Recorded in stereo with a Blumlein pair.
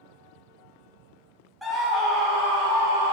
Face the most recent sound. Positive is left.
turn(degrees=-35)